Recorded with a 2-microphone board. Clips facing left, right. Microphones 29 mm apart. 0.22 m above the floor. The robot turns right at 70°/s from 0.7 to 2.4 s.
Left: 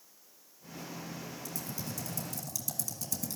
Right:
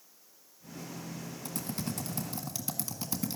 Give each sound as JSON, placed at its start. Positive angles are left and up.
{"t": 1.4, "sound": "typing on a keyboard", "side_deg": -50, "distance_m": 1.5}